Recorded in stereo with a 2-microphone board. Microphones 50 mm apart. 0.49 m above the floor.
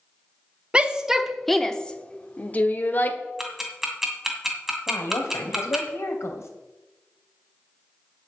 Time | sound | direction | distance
0.7 | a shout | 20° right (ahead or behind) | 0.9 m
3.4 | ticking | 10° right (ahead or behind) | 2.5 m
4.9 | a woman speaking | 70° left (ahead or behind) | 2.5 m